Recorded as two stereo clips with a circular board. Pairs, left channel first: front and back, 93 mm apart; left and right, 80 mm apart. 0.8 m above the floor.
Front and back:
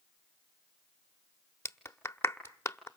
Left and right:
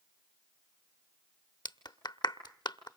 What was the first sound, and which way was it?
A clap, 60° left.